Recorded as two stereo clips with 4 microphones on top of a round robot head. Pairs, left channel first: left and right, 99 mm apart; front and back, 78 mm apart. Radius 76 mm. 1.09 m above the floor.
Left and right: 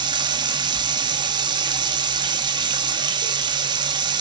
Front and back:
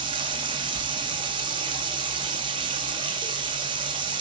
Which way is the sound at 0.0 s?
135° right.